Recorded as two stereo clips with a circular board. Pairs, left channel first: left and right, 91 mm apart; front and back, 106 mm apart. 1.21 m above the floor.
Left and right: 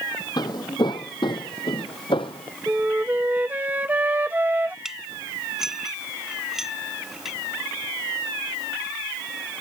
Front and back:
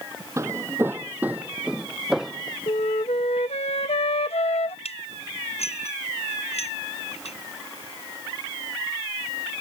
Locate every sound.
0.4 s footsteps: 125° left; by 2.6 s 90° left
2.7 s a flute: 20° right
4.8 s dishes clattering: 5° right